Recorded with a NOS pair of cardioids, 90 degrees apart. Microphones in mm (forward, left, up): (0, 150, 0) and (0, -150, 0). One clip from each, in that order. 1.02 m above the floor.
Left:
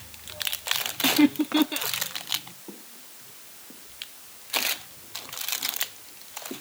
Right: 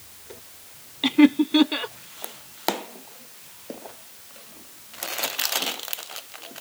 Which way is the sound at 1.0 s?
30° right.